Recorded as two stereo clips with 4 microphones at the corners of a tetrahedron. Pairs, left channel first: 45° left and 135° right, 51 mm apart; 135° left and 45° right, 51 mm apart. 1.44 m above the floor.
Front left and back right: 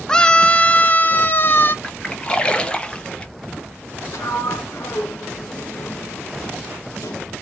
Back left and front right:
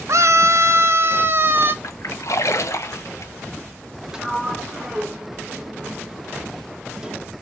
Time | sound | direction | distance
0.1 | a scream | 30° right | 0.8 m
1.8 | a splash | 115° left | 1.1 m
4.1 | a sliding door | 30° left | 1.3 m